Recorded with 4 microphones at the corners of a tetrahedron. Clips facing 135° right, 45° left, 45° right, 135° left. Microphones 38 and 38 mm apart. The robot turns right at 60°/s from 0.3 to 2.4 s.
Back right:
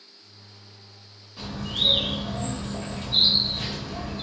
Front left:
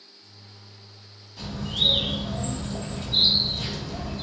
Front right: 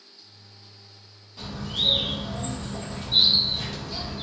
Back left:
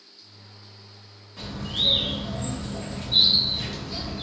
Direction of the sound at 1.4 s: 165° left.